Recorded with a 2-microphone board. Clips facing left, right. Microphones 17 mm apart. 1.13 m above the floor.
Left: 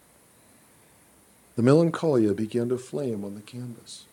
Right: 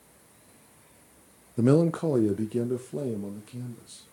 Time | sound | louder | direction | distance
1.6 | a man speaking | left 3 dB | 25° left (ahead or behind) | 0.6 m